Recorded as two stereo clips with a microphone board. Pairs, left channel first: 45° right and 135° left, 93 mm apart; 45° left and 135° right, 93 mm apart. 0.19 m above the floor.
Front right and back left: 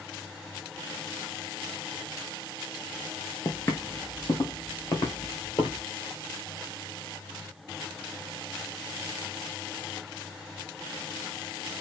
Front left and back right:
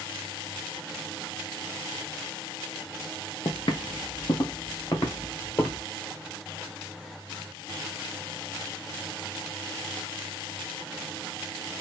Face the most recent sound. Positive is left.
turn(degrees=-20)